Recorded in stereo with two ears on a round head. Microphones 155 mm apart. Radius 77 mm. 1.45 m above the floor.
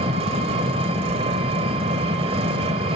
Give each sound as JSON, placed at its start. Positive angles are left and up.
{"t": 0.0, "sound": "an engine running", "side_deg": -35, "distance_m": 1.4}